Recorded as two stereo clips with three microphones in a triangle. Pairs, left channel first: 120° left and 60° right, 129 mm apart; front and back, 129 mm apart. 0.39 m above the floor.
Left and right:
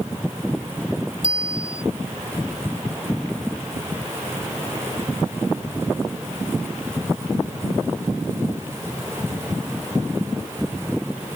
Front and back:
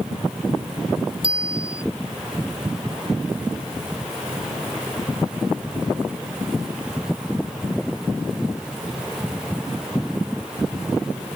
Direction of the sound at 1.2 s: 135° left.